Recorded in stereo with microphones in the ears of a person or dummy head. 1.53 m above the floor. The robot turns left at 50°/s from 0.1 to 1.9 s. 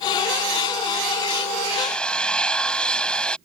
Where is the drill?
5° right (ahead or behind); by 3.4 s 5° left (ahead or behind).